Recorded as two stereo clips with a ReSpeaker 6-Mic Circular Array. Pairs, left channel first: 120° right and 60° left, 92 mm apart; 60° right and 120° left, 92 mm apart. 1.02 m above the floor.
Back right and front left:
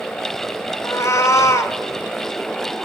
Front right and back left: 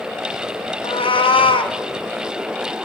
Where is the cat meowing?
65° right, 0.7 m.